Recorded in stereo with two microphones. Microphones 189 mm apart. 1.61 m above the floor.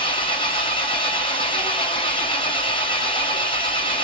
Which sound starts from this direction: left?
An engine running, at 0.0 s.